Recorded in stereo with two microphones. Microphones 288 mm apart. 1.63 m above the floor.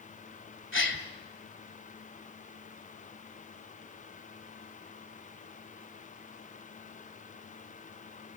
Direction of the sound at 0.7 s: 40° left (ahead or behind).